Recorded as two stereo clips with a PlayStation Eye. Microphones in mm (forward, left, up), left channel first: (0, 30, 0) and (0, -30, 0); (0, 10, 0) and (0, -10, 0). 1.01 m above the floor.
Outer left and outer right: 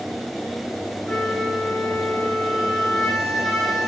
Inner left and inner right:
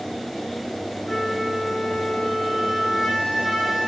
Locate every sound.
1.1 s a flute: 10° left (ahead or behind), 4 m